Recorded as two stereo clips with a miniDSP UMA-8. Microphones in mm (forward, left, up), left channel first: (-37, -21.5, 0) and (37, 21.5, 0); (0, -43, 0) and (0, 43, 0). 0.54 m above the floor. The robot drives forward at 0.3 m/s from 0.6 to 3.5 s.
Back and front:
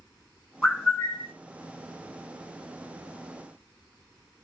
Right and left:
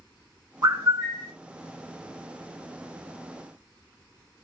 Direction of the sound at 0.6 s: 125° left.